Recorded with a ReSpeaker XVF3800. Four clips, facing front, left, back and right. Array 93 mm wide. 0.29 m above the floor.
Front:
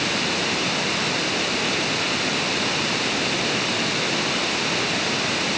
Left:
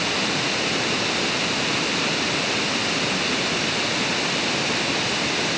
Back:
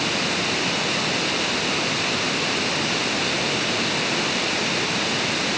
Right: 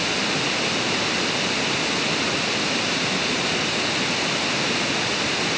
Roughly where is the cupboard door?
I don't hear a cupboard door.